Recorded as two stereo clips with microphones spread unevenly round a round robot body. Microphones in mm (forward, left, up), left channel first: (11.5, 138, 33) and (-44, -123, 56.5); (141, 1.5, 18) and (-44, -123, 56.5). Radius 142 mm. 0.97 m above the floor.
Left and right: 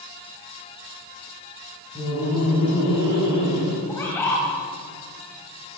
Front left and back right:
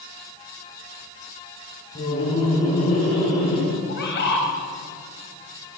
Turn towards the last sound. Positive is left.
turn(degrees=-5)